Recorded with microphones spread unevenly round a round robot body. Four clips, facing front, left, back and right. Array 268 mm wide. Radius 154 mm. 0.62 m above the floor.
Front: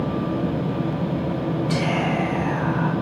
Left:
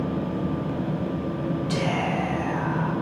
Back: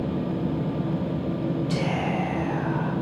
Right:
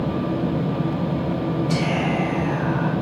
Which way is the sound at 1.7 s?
15° left.